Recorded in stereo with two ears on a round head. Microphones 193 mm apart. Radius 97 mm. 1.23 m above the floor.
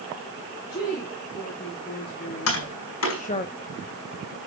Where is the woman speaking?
45° left (ahead or behind), 3.5 m; by 3.5 s 30° left (ahead or behind), 0.7 m.